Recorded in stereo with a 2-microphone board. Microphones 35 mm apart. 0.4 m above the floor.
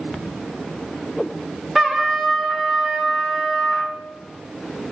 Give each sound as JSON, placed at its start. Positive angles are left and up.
{"t": 1.8, "sound": "a trumpet", "side_deg": 5, "distance_m": 1.1}